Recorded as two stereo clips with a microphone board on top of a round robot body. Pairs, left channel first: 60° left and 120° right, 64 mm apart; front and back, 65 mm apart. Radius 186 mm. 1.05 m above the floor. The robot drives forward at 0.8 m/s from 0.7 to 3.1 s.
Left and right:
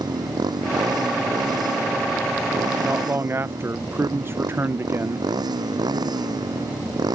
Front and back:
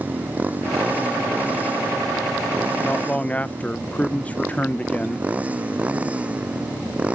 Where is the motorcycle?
115° right; by 7.2 s 110° right.